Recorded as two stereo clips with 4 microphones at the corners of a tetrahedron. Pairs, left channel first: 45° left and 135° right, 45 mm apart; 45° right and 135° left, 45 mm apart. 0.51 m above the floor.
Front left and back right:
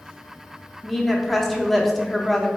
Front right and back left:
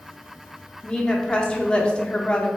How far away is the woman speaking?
About 0.6 m.